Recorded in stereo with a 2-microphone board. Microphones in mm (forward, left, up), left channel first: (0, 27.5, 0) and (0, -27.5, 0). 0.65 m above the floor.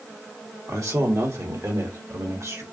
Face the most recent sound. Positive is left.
turn(degrees=-60)  # may be behind; listen again after turning